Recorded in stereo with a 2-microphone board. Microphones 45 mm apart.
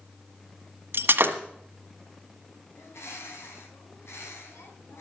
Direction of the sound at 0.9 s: 55° right (ahead or behind).